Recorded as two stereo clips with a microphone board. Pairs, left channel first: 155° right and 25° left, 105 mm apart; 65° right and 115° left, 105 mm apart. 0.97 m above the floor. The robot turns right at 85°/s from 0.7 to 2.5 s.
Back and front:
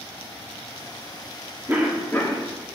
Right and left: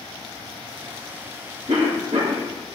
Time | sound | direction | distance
1.7 | a cough | 90° left | 1.8 m